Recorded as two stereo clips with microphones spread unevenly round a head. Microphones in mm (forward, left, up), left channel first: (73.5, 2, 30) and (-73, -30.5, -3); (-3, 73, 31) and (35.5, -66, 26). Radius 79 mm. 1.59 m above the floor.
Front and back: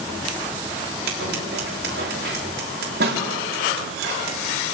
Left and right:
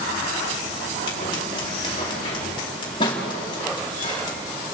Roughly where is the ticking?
No ticking in this recording.